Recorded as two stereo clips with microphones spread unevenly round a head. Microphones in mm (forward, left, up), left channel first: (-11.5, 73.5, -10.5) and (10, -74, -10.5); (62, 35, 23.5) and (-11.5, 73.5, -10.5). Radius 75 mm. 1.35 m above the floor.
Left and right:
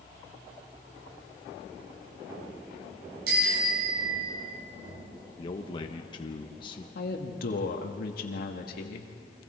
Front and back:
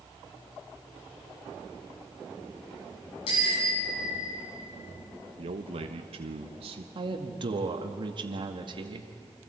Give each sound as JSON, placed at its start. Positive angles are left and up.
{"t": 3.3, "sound": "a bicycle bell", "azimuth_deg": -60, "distance_m": 8.0}
{"t": 5.4, "sound": "a man speaking", "azimuth_deg": 160, "distance_m": 1.1}
{"t": 7.0, "sound": "a woman speaking", "azimuth_deg": 125, "distance_m": 2.0}